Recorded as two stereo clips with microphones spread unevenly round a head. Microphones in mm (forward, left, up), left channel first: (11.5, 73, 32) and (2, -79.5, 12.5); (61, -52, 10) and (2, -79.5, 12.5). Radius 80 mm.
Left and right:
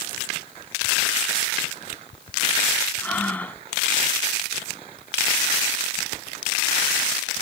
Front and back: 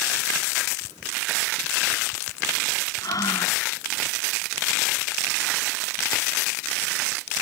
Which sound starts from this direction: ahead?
Breathing, at 3.0 s.